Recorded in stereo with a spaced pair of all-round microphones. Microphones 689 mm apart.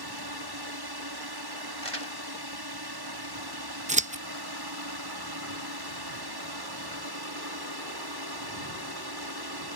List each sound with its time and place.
0.0 s a drone: 35° right (ahead or behind)
1.8 s crumpling: 50° left (ahead or behind)
3.9 s scissors: 10° right (ahead or behind)